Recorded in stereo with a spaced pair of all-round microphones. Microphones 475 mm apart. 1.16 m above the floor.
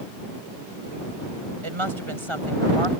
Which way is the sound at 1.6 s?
90° right.